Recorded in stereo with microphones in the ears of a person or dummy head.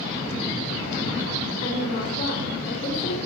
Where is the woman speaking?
45° left (ahead or behind), 3.5 m.